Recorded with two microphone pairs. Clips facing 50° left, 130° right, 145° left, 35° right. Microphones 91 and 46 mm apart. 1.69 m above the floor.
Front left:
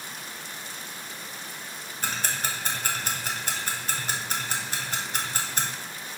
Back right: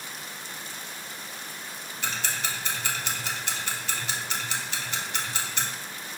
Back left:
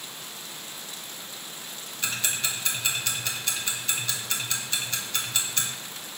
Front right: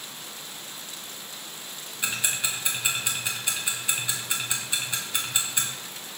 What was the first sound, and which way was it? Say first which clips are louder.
Ticking: front left 1 dB, front right 1 dB; 30° left.